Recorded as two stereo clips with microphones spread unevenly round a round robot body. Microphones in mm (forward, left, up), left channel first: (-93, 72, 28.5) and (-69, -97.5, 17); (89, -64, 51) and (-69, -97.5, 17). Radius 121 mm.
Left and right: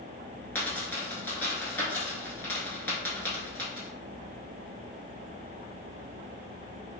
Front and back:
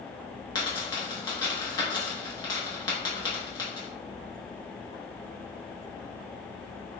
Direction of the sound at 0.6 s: 30° left.